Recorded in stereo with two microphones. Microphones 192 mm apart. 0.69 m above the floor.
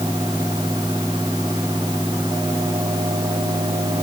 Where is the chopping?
I don't hear chopping.